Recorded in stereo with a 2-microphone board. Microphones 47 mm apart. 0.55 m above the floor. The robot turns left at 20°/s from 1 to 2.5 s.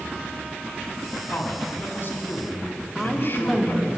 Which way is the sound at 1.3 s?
40° left (ahead or behind).